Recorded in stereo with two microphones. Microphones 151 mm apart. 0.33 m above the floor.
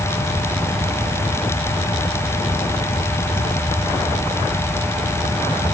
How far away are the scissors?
I don't hear scissors.